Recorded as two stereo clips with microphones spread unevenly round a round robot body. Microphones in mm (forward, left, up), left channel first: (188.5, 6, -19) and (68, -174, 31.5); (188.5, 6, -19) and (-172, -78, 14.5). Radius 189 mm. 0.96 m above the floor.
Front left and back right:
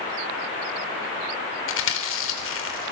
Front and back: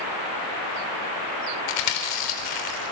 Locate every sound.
1.7 s chewing: 45° left, 3.5 m